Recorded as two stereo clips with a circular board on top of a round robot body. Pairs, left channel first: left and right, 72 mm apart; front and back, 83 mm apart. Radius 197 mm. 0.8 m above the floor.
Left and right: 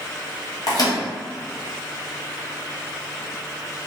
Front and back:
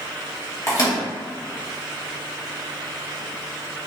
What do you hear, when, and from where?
0.7 s a microwave: 50° left, 1.3 m